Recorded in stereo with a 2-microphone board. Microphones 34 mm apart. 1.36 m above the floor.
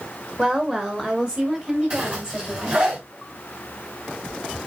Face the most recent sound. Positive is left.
turn(degrees=-30)  # may be behind; listen again after turning